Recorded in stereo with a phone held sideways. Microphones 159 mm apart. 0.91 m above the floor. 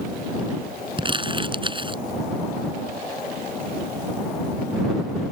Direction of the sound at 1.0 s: 30° right (ahead or behind).